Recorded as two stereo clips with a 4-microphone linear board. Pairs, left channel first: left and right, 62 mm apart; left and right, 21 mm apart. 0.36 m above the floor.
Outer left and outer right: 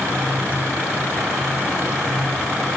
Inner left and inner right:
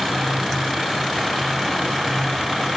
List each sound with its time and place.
Only background noise.